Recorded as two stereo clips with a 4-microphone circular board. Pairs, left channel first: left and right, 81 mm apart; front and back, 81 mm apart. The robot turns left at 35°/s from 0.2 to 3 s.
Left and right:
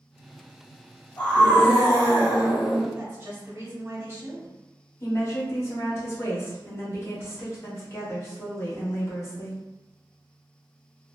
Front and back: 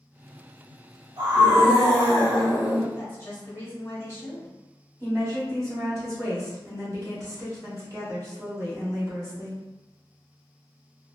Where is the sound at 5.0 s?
140° left, 1.4 m.